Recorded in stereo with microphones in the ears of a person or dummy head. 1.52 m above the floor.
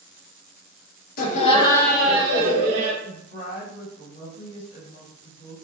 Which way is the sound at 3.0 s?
55° left (ahead or behind).